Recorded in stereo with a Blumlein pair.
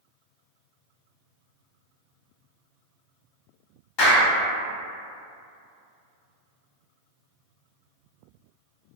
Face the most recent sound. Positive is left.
turn(degrees=40)